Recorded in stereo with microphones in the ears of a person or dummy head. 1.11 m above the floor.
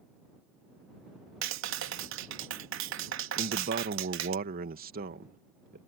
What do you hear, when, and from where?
1.4 s a clap: 70° right (ahead or behind)
3.4 s a man speaking: 45° right (ahead or behind)